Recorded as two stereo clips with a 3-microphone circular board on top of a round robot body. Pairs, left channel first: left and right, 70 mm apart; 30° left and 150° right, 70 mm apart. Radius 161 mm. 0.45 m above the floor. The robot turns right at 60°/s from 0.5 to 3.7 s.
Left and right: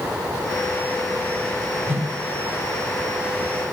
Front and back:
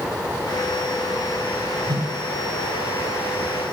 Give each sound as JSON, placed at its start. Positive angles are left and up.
{"t": 1.9, "sound": "a whoosh", "azimuth_deg": -150, "distance_m": 1.7}